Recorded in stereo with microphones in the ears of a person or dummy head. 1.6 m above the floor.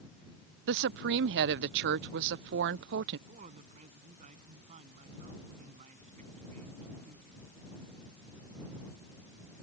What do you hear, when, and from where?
0.7 s a woman speaking: 60° right (ahead or behind)
3.3 s a woman speaking: 40° right (ahead or behind)